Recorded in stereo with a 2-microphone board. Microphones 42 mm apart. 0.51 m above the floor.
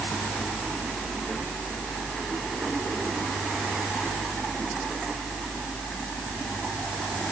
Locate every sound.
Only background noise.